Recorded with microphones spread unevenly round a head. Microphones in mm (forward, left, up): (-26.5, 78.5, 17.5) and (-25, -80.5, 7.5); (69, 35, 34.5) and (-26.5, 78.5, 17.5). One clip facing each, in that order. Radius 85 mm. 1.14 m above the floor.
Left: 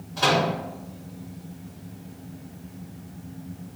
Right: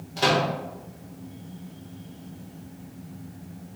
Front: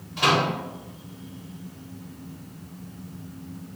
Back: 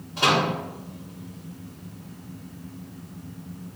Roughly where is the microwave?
Behind right.